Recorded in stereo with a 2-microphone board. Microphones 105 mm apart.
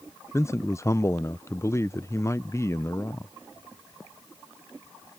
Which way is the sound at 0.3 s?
25° left (ahead or behind).